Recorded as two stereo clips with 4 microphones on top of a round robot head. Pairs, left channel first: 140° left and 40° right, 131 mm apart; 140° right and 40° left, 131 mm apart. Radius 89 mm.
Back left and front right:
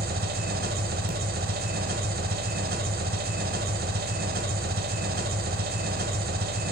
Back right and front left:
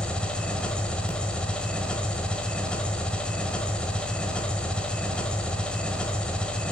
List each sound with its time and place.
0.0 s an engine running: 55° right, 1.0 m